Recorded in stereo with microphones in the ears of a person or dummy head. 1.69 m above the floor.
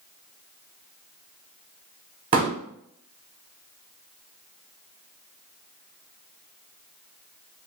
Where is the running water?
No running water in this recording.